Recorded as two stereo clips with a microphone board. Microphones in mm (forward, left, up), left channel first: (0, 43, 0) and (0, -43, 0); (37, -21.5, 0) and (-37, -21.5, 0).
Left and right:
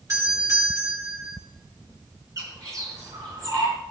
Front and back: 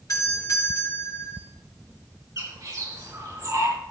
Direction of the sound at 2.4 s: 135° right.